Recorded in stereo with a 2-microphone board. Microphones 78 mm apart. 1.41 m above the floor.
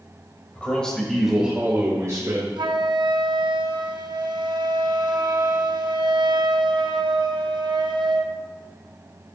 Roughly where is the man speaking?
Centre.